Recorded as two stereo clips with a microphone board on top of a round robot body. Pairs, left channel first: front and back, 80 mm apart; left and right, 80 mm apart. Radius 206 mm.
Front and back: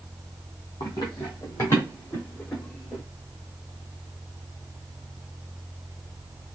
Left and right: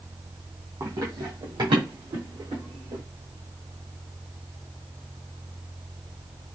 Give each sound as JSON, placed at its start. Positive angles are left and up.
{"t": 0.8, "sound": "running footsteps", "azimuth_deg": -40, "distance_m": 1.5}